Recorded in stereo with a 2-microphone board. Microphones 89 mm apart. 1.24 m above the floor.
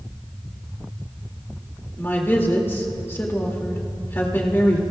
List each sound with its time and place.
2.0 s a woman speaking: 25° left (ahead or behind), 2 m